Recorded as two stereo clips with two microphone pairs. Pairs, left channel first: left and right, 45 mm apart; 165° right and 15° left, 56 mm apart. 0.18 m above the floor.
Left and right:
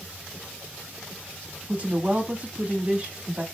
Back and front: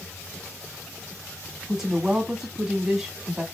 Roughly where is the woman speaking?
Ahead right.